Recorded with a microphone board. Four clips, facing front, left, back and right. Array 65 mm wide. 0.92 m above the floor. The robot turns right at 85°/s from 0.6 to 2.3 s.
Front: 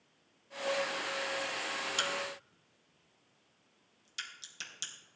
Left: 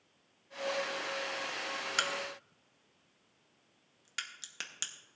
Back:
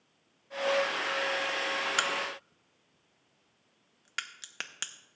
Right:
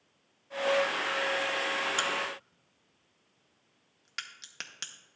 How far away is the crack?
About 0.7 m.